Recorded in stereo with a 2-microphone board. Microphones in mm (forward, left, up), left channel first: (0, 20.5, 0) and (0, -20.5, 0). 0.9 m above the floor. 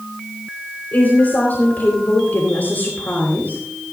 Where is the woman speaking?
50° left (ahead or behind), 3.5 m.